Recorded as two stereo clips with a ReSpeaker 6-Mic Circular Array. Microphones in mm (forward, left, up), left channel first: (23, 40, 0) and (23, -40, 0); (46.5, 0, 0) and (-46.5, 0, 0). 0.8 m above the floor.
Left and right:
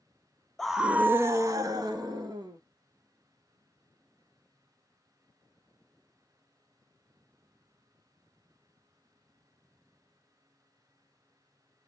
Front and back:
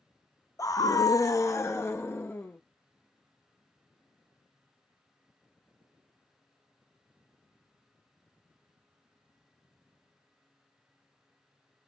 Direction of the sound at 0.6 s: 10° left.